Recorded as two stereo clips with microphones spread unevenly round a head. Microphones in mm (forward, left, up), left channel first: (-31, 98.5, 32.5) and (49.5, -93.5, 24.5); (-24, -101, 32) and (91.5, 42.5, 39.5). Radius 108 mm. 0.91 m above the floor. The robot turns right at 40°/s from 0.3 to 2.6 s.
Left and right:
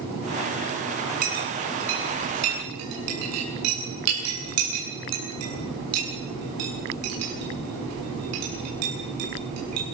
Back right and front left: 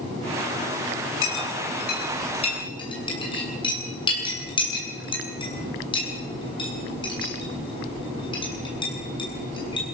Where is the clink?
120° right, 8 m; by 9.8 s 65° right, 8 m.